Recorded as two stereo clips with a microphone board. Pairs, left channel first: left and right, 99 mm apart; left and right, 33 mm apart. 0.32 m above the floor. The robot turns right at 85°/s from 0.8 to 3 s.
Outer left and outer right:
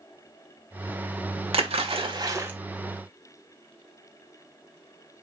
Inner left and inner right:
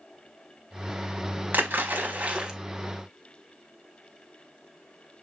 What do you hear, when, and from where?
1.5 s a splash: 75° right (ahead or behind), 0.5 m; by 2.5 s 20° right (ahead or behind), 0.5 m